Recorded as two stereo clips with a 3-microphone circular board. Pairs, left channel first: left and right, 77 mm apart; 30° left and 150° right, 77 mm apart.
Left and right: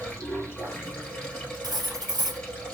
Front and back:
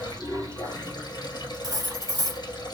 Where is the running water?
15° left, 1.6 m.